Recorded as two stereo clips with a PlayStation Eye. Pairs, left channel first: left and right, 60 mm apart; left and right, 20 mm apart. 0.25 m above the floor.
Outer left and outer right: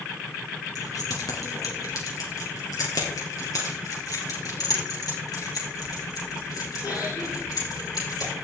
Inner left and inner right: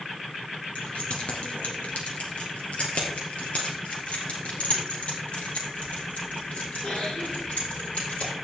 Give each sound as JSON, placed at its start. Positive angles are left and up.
{"t": 0.8, "sound": "keys jangling", "side_deg": 70, "distance_m": 2.5}